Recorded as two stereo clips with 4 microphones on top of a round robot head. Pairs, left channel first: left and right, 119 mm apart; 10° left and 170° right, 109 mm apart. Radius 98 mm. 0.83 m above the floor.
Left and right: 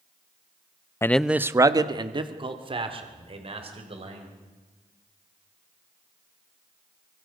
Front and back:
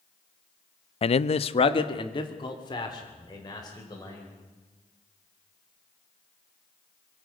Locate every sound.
1.0 s a man speaking: 25° left, 0.6 m; by 4.3 s 50° right, 4 m